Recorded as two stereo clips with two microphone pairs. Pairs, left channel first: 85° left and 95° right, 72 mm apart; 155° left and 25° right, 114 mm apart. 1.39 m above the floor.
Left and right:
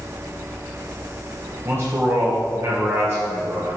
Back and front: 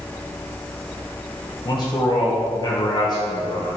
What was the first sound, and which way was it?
A man speaking, 150° right.